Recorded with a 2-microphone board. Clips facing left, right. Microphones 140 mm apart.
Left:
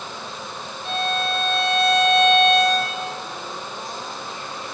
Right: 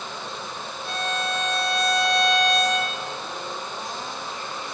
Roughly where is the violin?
Left.